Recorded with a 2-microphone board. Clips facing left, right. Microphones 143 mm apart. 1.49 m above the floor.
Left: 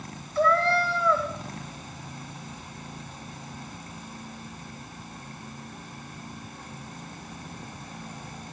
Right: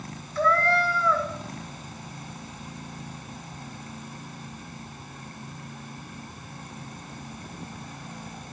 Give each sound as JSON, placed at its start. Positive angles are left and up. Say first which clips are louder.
{"t": 0.3, "sound": "a cat meowing", "louder": "left 1 dB", "side_deg": 30, "distance_m": 1.7}